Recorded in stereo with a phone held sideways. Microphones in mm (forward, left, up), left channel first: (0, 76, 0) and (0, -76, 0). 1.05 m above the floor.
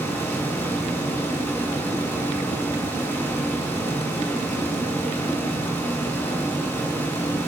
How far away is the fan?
About 1.1 m.